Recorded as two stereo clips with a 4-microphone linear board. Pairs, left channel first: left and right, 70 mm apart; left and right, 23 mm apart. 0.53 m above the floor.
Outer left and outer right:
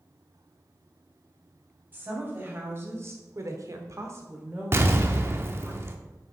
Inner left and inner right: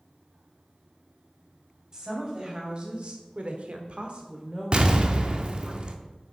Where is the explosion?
40° right (ahead or behind), 0.7 m.